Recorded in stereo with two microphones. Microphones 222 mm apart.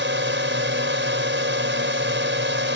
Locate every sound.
0.0 s a drone: 60° right (ahead or behind)